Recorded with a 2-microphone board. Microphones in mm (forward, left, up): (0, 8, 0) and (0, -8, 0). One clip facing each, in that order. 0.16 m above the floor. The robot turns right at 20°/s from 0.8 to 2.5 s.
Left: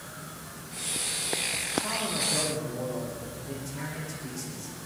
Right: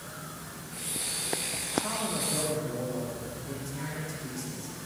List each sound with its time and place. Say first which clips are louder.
1.8 s a man speaking: left 2 dB; centre (ahead or behind), 8 m; by 4.8 s 10° left (ahead or behind), 8 m